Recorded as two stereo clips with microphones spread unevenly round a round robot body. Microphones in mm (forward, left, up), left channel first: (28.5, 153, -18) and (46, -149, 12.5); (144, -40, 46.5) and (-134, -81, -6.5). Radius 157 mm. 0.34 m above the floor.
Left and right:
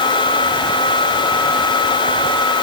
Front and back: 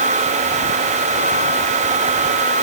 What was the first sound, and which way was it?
Only background noise.